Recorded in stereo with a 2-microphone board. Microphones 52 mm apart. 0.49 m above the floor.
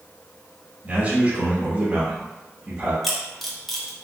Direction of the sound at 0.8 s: 30° right (ahead or behind).